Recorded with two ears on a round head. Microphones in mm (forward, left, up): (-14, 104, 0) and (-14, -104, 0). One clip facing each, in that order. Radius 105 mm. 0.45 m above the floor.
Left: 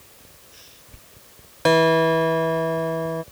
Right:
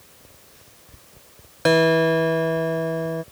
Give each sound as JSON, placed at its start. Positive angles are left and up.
{"t": 1.6, "sound": "a guitar", "side_deg": -5}